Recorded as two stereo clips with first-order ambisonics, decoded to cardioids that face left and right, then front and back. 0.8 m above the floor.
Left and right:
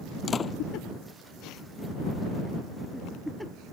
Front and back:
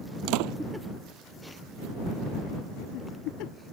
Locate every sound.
0.3 s a door slam: 160° left